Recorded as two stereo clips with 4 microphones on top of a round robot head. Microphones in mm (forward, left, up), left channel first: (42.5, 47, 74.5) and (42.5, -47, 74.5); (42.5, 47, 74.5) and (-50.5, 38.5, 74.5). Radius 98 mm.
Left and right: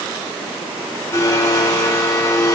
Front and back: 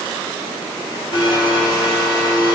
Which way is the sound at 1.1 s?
40° left.